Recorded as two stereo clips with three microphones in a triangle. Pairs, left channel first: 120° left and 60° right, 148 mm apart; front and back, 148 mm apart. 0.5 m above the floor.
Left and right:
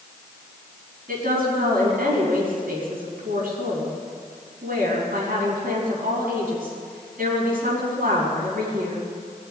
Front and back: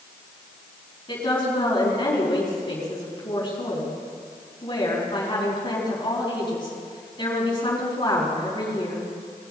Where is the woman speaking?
55° right, 5 m.